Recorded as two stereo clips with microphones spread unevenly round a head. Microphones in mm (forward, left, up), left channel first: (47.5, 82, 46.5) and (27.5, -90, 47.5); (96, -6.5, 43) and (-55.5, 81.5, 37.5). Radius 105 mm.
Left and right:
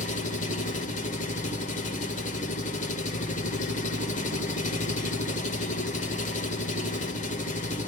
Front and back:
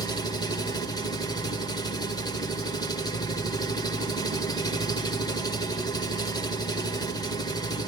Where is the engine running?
40° left, 1.9 m.